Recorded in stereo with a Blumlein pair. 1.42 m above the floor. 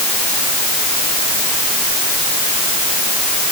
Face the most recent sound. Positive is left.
No sound to turn to.